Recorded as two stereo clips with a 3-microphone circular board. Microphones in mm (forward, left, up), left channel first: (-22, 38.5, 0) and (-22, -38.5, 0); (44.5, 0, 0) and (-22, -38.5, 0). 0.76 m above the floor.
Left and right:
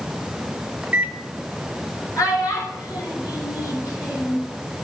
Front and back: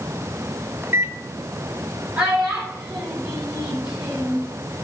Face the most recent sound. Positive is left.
turn(degrees=135)